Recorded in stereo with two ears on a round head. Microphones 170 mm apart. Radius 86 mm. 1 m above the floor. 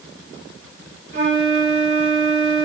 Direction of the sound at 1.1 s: 40° right (ahead or behind).